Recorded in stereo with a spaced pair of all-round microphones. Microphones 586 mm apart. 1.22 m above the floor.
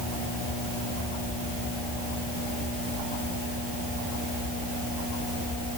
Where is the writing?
I don't hear writing.